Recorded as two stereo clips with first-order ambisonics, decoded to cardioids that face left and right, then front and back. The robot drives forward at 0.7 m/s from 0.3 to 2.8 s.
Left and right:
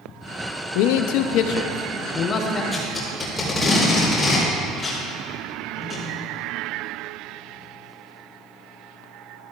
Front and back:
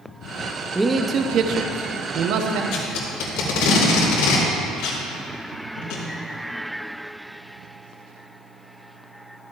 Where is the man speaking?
95° left, 0.7 m; by 2.6 s 155° left, 1.5 m.